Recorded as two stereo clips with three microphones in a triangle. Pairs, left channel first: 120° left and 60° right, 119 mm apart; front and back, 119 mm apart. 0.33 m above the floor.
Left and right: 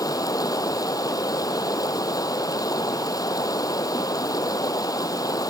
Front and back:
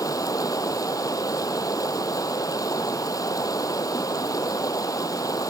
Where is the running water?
60° left.